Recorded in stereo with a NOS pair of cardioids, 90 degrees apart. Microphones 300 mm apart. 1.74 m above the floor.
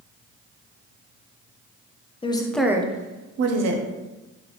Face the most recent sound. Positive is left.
turn(degrees=-70)